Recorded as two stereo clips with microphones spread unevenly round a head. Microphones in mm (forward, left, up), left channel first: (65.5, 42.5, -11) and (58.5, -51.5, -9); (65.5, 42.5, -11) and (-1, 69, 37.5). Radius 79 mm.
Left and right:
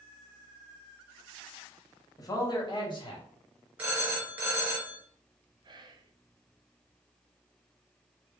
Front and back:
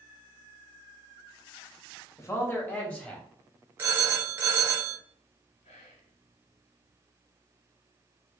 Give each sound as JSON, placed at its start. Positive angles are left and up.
{"t": 2.2, "sound": "a man speaking", "azimuth_deg": 35, "distance_m": 1.1}
{"t": 3.8, "sound": "a phone ringing", "azimuth_deg": -170, "distance_m": 0.6}
{"t": 5.6, "sound": "whispering", "azimuth_deg": -60, "distance_m": 0.7}